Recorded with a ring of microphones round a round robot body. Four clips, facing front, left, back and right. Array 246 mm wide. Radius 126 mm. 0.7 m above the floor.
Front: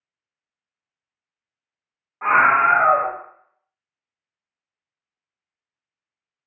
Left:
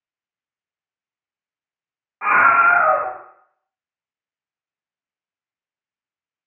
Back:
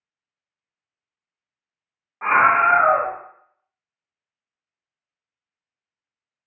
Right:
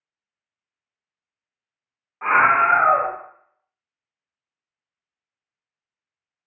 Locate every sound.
2.2 s a scream: 95° left, 0.9 m